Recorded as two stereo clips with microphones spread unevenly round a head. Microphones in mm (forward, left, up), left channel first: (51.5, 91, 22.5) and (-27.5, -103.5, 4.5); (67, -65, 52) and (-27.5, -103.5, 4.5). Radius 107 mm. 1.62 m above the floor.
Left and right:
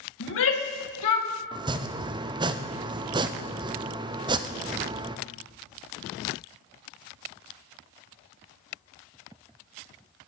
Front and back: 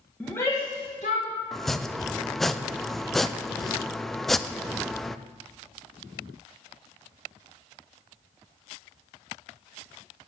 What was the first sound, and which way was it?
A shout, 110° left.